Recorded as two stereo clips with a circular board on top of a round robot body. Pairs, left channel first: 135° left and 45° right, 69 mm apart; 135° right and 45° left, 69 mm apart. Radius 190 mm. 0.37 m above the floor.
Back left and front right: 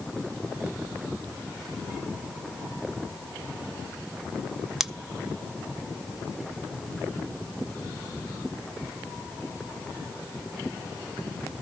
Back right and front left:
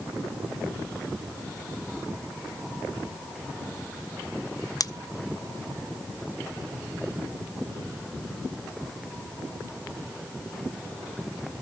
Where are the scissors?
130° right, 0.9 m.